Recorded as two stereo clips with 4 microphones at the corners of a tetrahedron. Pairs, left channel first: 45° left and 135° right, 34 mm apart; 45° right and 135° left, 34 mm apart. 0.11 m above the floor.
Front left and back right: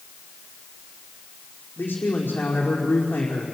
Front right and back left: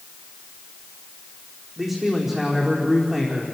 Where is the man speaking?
55° left, 4.5 m.